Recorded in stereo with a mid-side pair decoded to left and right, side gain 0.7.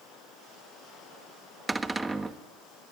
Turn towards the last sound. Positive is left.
turn(degrees=-15)